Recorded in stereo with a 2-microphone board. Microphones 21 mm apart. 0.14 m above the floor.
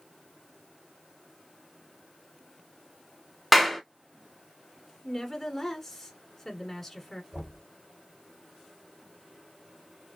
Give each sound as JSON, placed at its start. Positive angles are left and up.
{"t": 3.5, "sound": "a clap", "side_deg": -5, "distance_m": 0.8}
{"t": 5.0, "sound": "a woman speaking", "side_deg": 10, "distance_m": 1.3}
{"t": 7.3, "sound": "knocking", "side_deg": -55, "distance_m": 2.5}